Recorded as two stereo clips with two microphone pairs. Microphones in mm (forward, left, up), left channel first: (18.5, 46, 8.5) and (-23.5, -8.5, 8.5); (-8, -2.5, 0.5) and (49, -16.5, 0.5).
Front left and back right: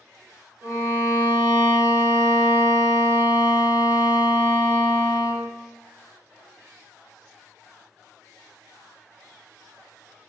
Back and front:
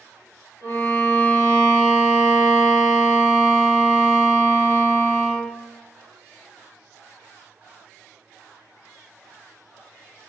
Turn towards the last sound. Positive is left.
turn(degrees=-175)